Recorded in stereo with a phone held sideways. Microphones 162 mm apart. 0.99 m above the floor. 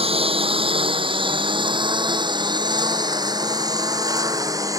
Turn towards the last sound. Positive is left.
turn(degrees=-20)  # may be behind; listen again after turning